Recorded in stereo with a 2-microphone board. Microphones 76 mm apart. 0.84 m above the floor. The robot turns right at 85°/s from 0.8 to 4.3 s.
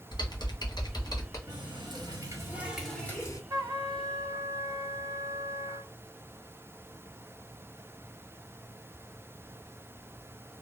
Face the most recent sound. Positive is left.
turn(degrees=-55)